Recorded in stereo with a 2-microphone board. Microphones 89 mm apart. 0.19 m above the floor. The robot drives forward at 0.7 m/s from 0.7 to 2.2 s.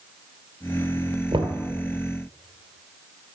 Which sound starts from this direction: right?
Knocking, at 1.3 s.